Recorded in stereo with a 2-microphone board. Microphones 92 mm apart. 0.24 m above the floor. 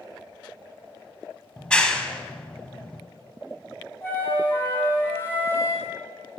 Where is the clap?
10° left (ahead or behind), 1.1 m.